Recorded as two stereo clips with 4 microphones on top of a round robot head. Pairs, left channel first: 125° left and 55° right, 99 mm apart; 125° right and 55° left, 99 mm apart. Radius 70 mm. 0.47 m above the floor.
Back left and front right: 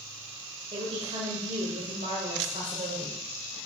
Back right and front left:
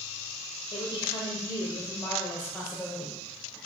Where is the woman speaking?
90° right, 1.8 m; by 3.6 s 35° right, 2.5 m.